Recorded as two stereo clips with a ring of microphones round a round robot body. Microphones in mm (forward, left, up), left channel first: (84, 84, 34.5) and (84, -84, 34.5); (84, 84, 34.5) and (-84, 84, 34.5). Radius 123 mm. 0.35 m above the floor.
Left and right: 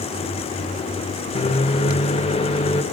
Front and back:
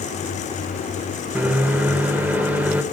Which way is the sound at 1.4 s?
105° left.